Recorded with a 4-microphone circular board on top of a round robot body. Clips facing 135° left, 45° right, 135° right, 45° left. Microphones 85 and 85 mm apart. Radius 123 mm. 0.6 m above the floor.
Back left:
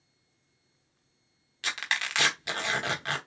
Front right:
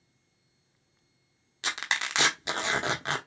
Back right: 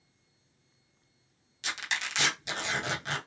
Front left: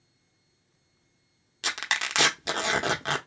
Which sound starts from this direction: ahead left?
Tearing paper, at 1.6 s.